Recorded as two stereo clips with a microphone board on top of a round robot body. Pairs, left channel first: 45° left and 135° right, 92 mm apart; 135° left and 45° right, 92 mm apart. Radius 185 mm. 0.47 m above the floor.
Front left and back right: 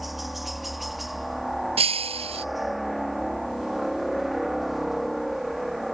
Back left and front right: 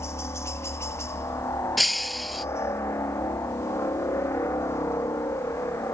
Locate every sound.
0.0 s a helicopter: 140° left
1.8 s breaking glass: 135° right